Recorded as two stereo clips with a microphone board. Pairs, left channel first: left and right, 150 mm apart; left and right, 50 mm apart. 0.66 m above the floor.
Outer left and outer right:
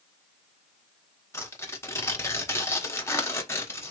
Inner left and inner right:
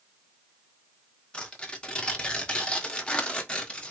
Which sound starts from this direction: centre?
Tearing paper, at 1.3 s.